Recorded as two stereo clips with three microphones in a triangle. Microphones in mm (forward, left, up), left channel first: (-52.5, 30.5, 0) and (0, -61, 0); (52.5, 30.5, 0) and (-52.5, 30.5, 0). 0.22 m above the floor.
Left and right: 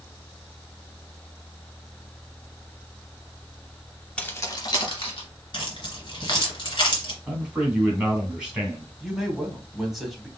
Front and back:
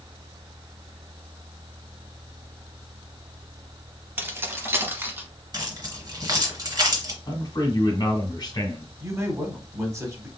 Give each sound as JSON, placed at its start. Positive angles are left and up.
{"t": 4.2, "sound": "keys jangling", "azimuth_deg": 180, "distance_m": 0.7}
{"t": 5.5, "sound": "keys jangling", "azimuth_deg": 140, "distance_m": 1.6}
{"t": 7.3, "sound": "a man speaking", "azimuth_deg": 20, "distance_m": 1.9}
{"t": 9.0, "sound": "a man speaking", "azimuth_deg": -145, "distance_m": 1.2}